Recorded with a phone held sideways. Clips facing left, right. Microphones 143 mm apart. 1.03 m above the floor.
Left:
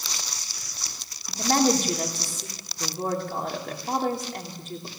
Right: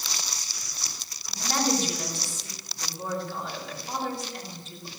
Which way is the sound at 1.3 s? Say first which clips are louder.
Left 5 dB; 55° left (ahead or behind).